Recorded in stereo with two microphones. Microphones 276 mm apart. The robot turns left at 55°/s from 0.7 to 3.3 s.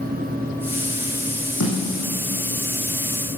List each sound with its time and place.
1.6 s a snare drum: 80° left, 7.5 m; by 2.1 s 60° left (ahead or behind), 7.5 m